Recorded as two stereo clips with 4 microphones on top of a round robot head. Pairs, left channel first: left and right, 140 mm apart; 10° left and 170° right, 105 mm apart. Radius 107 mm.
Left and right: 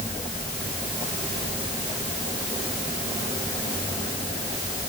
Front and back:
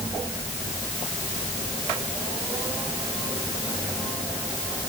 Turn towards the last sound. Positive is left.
No sound to turn to.